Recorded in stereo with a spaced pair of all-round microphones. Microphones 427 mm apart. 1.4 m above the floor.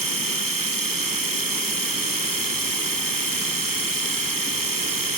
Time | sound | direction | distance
0.0 | a machine running | 50° right (ahead or behind) | 0.9 m